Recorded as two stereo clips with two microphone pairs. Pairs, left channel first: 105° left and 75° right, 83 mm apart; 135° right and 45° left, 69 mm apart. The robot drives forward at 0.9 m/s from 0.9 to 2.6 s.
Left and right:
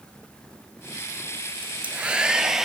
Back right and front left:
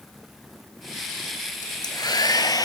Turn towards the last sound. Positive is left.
turn(degrees=-160)